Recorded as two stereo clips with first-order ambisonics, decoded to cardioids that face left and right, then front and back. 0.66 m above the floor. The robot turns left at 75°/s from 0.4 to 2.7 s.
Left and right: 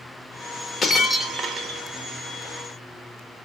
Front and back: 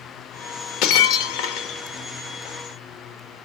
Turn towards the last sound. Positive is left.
turn(degrees=-115)